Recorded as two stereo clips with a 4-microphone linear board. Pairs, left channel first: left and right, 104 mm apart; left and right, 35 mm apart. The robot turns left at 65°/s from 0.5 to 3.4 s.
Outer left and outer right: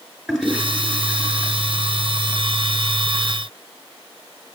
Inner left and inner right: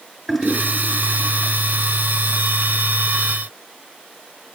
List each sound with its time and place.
0.3 s a toilet flushing: 5° right (ahead or behind), 2.5 m; by 1.5 s 45° right (ahead or behind), 2.5 m